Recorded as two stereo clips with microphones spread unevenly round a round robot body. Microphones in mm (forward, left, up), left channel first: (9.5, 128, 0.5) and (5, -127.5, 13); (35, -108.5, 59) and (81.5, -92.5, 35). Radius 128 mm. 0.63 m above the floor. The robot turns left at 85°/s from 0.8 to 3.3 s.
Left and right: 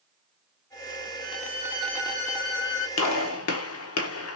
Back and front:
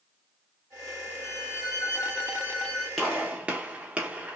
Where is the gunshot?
100° left, 1.2 m; by 4.4 s 70° left, 1.2 m.